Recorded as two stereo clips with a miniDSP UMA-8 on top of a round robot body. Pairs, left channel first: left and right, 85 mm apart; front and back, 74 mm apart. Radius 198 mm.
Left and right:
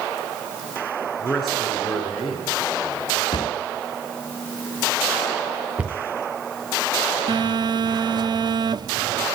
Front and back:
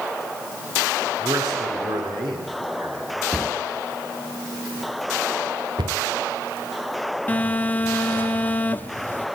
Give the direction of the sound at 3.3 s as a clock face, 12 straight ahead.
9 o'clock.